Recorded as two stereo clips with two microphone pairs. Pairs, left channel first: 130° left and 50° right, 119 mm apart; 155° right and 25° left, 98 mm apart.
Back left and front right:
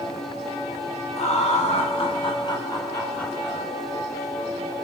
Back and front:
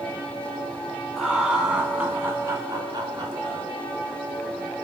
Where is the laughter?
110° left, 3.5 m; by 3.7 s 35° left, 2.5 m.